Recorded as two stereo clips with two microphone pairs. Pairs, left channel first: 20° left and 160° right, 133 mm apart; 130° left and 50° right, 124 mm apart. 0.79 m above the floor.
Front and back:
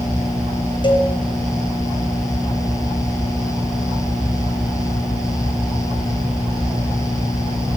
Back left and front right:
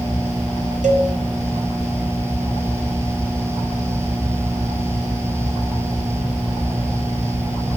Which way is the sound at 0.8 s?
35° right.